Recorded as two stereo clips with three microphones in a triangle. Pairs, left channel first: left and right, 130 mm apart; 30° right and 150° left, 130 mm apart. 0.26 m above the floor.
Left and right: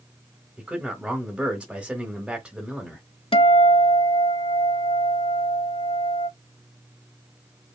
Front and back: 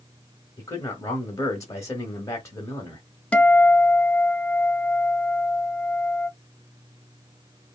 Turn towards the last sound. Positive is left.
turn(degrees=50)